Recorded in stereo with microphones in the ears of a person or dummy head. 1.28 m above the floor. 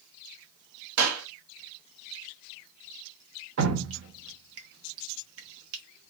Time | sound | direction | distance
1.0 | a clap | 90° right | 1.4 m
3.6 | dripping | 70° right (ahead or behind) | 0.9 m